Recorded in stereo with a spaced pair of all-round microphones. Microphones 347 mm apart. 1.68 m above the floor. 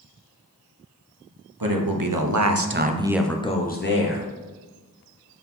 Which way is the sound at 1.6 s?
75° right (ahead or behind).